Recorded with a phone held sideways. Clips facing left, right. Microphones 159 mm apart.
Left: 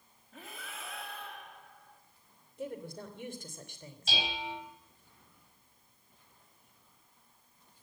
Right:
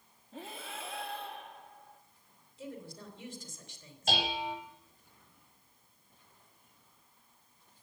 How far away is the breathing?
About 1.5 m.